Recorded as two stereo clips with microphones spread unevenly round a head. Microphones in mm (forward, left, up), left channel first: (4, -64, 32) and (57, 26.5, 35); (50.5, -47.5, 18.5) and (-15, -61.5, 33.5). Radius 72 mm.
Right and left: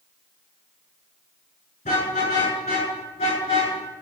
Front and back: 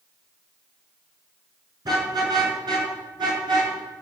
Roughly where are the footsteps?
I don't hear footsteps.